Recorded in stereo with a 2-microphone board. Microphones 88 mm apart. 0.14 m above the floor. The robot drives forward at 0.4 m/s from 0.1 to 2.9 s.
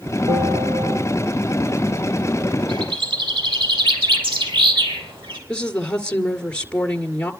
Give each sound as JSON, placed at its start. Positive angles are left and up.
{"t": 0.3, "sound": "a bell", "side_deg": -80, "distance_m": 6.0}
{"t": 2.7, "sound": "a bird", "side_deg": -75, "distance_m": 4.0}
{"t": 5.5, "sound": "a woman speaking", "side_deg": 10, "distance_m": 2.0}